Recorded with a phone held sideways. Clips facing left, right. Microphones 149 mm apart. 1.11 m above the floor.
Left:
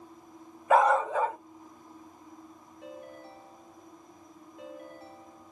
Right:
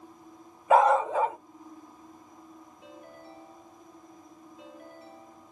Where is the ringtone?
85° left, 10 m.